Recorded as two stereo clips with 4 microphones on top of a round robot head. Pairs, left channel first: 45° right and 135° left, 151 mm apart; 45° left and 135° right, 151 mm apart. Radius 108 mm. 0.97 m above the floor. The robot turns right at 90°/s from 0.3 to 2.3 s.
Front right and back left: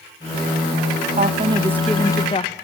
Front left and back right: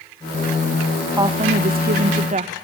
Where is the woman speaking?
160° left, 1.1 m; by 2.5 s 95° right, 1.1 m.